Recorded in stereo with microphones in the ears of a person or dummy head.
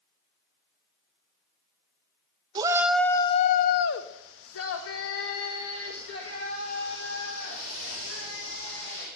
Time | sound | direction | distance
2.5 | a shout | 20° right (ahead or behind) | 0.6 m